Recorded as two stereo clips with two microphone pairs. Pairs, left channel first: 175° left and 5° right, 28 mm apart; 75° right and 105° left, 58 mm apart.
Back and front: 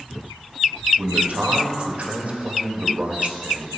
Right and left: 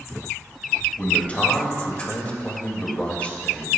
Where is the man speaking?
10° right, 1.7 m.